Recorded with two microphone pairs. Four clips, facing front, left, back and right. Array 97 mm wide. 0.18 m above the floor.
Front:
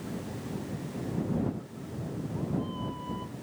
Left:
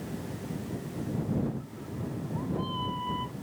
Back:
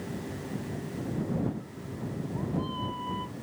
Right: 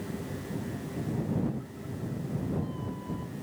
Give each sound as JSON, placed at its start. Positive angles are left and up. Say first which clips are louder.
{"t": 1.7, "sound": "a cat meowing", "louder": "even, back 1 dB", "azimuth_deg": 125}